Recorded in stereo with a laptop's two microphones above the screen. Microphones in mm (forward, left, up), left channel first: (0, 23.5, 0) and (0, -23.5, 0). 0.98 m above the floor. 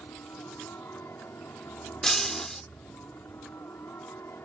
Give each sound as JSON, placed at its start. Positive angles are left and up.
{"t": 0.0, "sound": "a helicopter", "side_deg": 60}
{"t": 2.0, "sound": "breaking glass", "side_deg": 10}